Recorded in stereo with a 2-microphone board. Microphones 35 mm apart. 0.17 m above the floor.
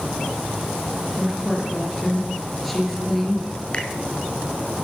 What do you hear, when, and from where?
1.2 s a woman speaking: 5° left (ahead or behind), 3.5 m
3.7 s a finger snap: 30° left (ahead or behind), 1.4 m